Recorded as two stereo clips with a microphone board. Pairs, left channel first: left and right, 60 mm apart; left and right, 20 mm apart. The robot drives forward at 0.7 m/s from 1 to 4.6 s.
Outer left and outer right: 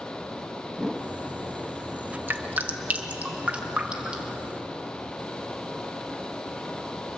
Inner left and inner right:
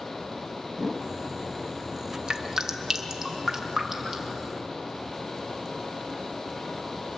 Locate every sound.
0.7 s a whoosh: 5° right (ahead or behind), 1.2 m
2.3 s dripping: 35° right (ahead or behind), 1.2 m; by 4.4 s 15° right (ahead or behind), 2.5 m